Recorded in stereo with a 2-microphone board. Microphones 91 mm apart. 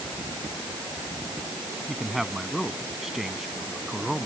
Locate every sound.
1.9 s a man speaking: 5° right (ahead or behind)